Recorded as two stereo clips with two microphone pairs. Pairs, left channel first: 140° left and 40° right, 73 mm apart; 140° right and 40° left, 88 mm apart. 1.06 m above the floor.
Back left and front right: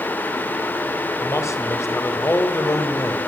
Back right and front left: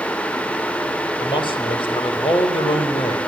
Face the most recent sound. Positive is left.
turn(degrees=-165)